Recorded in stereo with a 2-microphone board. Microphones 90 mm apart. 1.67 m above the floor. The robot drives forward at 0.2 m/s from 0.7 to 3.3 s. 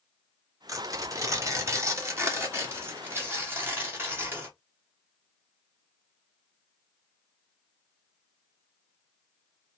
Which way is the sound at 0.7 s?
35° right (ahead or behind).